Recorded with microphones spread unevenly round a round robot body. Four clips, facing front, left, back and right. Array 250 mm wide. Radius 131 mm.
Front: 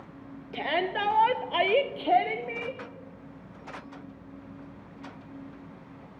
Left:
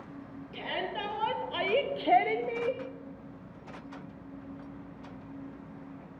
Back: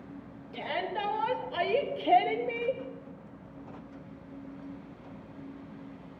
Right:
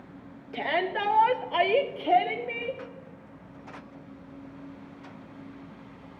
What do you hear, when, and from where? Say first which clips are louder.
0.5 s a shout: right 8 dB, front 5 dB; 40° right, 2.5 m; by 2.8 s 140° left, 1.4 m